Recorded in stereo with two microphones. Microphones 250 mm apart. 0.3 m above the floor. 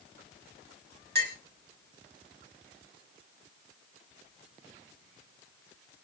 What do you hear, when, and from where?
1.1 s a clink: 45° right (ahead or behind), 1.4 m